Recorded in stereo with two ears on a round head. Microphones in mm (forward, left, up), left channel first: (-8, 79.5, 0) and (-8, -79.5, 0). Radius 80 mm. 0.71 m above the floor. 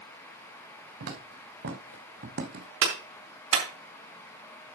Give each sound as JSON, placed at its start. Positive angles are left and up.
{"t": 1.0, "sound": "footsteps", "side_deg": -80, "distance_m": 4.0}
{"t": 2.8, "sound": "a clap", "side_deg": -85, "distance_m": 4.0}